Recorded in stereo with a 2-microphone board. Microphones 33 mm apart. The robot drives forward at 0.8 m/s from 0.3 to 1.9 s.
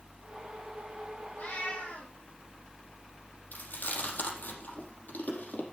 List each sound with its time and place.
1.4 s a cat meowing: 75° left (ahead or behind), 4.5 m; by 2.1 s 70° left (ahead or behind), 4.5 m
3.5 s chewing: 80° left, 5 m